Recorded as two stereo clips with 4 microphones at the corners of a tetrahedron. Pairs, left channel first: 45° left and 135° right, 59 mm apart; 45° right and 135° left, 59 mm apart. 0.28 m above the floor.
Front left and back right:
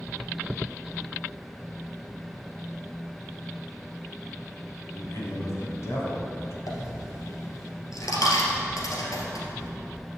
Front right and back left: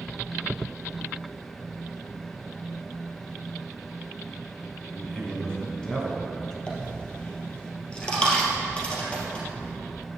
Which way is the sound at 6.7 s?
25° left.